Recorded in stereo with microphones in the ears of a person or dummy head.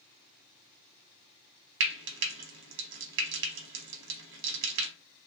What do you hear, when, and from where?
1.8 s frying: 70° right (ahead or behind), 0.8 m